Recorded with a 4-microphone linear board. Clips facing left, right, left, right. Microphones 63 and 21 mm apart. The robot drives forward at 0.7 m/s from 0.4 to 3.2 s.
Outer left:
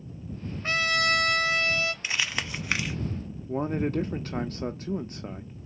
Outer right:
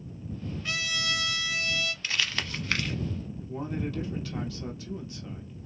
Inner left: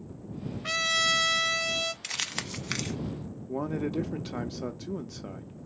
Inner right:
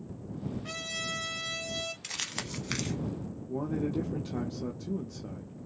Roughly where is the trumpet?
Left.